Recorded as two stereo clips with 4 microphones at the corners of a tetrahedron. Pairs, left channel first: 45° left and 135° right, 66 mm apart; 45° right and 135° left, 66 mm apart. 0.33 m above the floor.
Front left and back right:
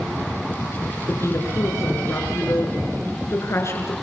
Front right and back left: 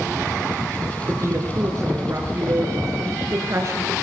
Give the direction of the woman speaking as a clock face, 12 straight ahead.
9 o'clock.